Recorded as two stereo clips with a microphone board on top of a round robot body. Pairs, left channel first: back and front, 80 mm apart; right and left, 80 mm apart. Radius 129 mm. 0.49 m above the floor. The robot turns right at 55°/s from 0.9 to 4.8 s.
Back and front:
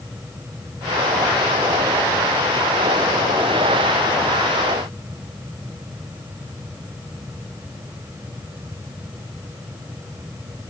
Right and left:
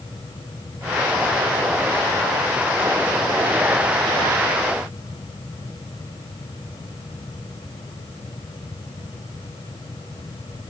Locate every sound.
Only background noise.